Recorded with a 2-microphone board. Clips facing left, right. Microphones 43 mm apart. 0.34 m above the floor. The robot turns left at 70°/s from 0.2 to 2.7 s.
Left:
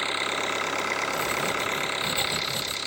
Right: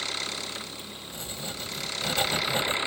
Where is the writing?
50° left; by 2.8 s 60° right.